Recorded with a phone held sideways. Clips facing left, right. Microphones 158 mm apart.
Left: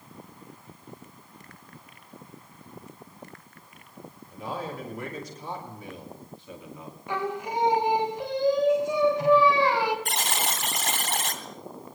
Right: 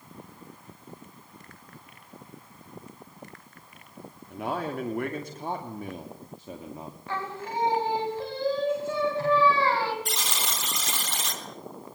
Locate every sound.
4.3 s a man speaking: 65° right (ahead or behind), 2.5 m; by 7.0 s 35° right (ahead or behind), 2.5 m
7.1 s singing: 15° left (ahead or behind), 3.5 m
10.1 s a buzzer: 55° left (ahead or behind), 3.5 m